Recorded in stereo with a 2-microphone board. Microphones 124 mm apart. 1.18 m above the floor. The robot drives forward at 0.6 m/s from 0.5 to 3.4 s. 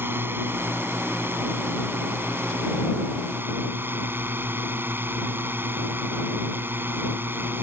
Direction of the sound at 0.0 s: 15° right (ahead or behind).